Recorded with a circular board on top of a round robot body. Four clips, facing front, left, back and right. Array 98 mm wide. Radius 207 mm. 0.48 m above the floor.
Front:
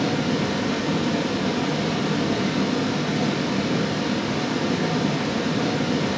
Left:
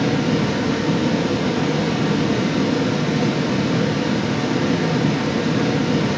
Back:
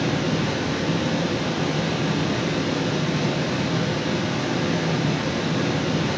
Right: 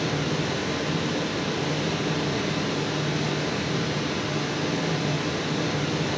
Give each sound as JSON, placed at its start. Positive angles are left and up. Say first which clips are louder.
{"t": 0.0, "sound": "running water", "louder": "left 8 dB, front 1 dB", "azimuth_deg": 90, "distance_m": 0.7}